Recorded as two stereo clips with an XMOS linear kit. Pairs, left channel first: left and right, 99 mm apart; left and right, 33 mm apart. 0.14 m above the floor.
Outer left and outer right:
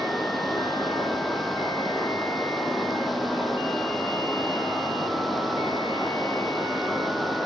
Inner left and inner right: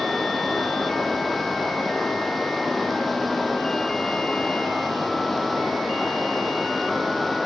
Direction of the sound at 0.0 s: Centre (ahead or behind).